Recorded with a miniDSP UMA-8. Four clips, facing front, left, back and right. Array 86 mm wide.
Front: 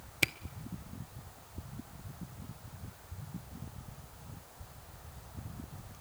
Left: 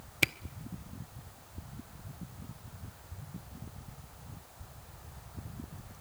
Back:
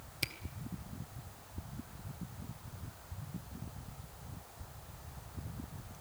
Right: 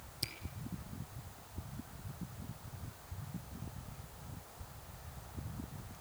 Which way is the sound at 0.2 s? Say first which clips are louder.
Left 16 dB, front 9 dB; 65° left.